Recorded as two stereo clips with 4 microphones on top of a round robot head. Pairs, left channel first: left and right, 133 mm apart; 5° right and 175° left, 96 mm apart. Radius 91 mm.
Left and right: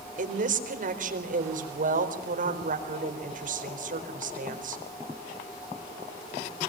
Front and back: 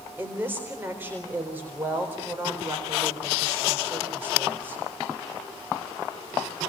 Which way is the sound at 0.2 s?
110° right.